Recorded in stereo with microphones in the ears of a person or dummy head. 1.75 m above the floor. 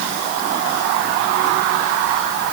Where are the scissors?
No scissors in this recording.